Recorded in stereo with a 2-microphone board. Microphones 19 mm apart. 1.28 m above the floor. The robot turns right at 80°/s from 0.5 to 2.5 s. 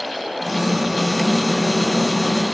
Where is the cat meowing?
I don't hear a cat meowing.